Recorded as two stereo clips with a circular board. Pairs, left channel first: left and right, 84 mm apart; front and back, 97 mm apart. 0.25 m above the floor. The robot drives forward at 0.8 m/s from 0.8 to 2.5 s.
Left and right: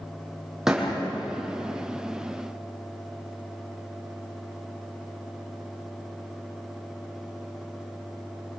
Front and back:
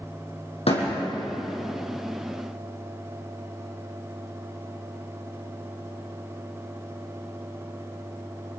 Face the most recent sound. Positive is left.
turn(degrees=-5)